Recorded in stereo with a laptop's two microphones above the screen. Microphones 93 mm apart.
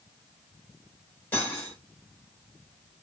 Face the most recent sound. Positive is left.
turn(degrees=20)  # may be behind; listen again after turning